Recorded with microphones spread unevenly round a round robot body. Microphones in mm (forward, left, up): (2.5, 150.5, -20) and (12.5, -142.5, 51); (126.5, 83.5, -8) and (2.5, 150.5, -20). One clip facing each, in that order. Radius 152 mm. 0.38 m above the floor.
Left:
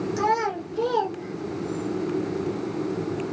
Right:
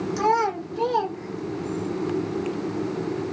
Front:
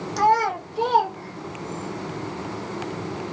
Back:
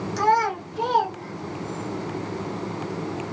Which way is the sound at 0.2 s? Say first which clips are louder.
Right 2 dB, front 2 dB; 15° right.